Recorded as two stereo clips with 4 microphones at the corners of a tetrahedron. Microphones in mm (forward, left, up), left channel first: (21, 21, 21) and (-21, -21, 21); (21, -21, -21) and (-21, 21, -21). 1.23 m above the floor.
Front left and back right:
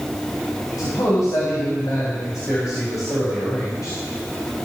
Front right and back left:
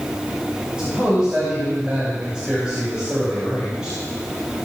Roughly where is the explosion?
I don't hear an explosion.